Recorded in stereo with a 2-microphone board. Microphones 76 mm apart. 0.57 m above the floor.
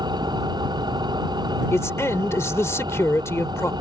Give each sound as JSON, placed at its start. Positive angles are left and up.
{"t": 0.0, "sound": "an engine running", "side_deg": -75}
{"t": 1.7, "sound": "a man speaking", "side_deg": 40}